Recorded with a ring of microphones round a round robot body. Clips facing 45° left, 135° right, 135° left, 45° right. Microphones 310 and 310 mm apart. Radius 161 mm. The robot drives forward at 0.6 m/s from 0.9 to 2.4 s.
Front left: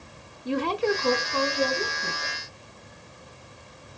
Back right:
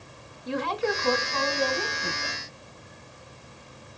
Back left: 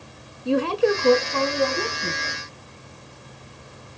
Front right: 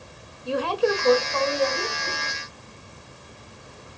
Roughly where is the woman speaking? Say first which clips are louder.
Front left 3 dB, back left 3 dB; left.